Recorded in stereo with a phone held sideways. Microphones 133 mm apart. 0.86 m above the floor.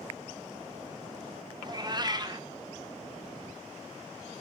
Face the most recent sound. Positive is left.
turn(degrees=-30)  # may be behind; listen again after turning